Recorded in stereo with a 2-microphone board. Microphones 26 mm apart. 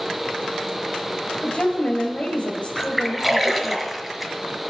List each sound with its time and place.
1.4 s a woman speaking: 45° left (ahead or behind), 1.9 m
2.8 s a splash: 5° right (ahead or behind), 1.6 m